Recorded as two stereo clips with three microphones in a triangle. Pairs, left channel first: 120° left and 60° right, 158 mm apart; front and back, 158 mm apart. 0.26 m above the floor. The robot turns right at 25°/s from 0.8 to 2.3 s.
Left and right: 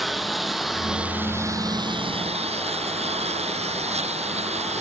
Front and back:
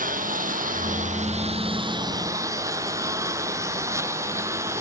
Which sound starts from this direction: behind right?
A lawn mower, at 0.0 s.